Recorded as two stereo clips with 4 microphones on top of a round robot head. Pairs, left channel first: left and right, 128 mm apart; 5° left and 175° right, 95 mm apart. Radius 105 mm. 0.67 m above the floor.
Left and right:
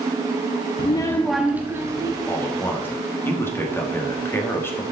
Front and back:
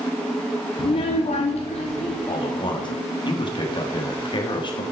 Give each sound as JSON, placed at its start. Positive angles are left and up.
{"t": 0.8, "sound": "a child speaking", "azimuth_deg": 50, "distance_m": 0.5}
{"t": 2.3, "sound": "a man speaking", "azimuth_deg": 20, "distance_m": 1.7}